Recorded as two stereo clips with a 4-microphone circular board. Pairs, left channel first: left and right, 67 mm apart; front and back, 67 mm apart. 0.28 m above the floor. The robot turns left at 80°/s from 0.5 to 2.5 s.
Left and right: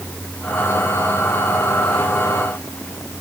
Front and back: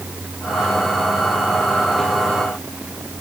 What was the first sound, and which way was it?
Only background noise.